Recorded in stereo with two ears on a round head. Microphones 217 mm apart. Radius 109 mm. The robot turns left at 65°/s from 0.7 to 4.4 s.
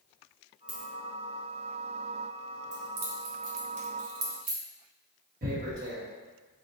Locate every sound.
0.7 s a dropped coin: 5° right (ahead or behind), 1.4 m; by 0.9 s 5° left (ahead or behind), 1.4 m
2.7 s keys jangling: 30° right (ahead or behind), 1.1 m; by 4.6 s 35° right (ahead or behind), 1.1 m
5.4 s tearing paper: 35° right (ahead or behind), 1.1 m